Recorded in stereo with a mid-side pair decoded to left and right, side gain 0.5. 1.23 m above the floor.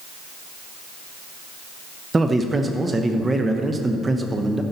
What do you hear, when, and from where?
2.1 s a man speaking: 25° right, 0.8 m